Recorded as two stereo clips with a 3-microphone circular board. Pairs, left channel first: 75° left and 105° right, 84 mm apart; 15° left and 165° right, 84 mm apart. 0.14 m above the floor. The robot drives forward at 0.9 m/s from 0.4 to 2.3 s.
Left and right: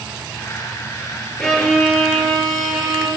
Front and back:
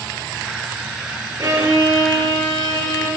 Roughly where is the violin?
Behind.